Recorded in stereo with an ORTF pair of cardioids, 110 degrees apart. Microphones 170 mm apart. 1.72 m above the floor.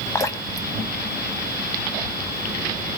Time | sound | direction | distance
0.1 | dripping | 20° left | 2 m